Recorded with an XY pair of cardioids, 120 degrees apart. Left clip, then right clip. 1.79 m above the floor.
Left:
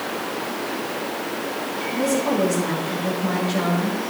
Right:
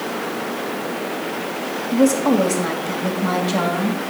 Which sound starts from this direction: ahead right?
A woman speaking, at 1.9 s.